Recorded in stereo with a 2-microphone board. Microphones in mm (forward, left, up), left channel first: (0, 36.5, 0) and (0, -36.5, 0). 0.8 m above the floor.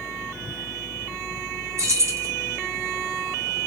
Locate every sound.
1.8 s keys jangling: 45° right (ahead or behind), 0.5 m